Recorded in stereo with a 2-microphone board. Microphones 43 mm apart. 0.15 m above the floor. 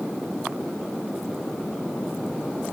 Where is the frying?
I don't hear frying.